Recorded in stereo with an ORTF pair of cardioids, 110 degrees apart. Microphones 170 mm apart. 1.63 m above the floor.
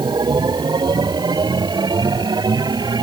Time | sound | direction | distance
0.0 | a machine running | 25° right | ?